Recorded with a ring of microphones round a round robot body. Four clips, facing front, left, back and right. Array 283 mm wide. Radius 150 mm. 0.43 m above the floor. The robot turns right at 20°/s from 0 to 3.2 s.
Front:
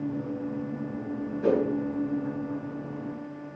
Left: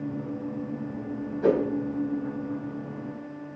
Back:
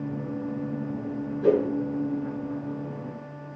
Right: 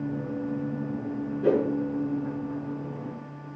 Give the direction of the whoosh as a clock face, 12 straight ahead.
9 o'clock.